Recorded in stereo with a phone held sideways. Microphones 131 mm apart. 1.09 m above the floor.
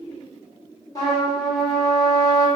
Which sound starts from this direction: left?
A trumpet, at 0.9 s.